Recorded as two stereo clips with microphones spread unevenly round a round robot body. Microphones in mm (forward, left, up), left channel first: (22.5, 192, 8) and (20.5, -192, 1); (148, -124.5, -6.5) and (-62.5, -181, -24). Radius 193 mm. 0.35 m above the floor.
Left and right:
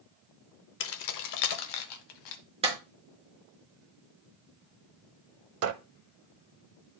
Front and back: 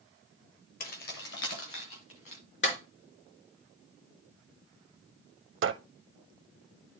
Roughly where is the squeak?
Behind right.